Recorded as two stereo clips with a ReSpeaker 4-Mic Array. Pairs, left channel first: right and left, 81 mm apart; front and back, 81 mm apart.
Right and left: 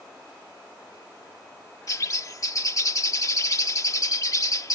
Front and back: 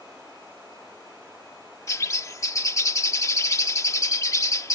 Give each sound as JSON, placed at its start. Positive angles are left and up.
{"t": 1.9, "sound": "a bird", "azimuth_deg": -45}